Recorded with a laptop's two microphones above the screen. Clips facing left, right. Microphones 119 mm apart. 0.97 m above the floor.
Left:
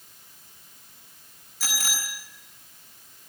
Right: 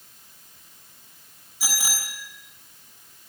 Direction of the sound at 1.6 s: 15° right (ahead or behind).